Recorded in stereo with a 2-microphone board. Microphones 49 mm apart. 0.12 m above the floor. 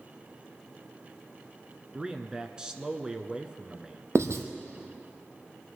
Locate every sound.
1.9 s a man speaking: 20° right (ahead or behind), 1.1 m
4.2 s writing: 75° right (ahead or behind), 1.4 m